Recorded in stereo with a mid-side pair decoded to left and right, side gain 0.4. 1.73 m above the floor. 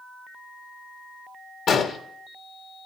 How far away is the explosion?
About 1.8 m.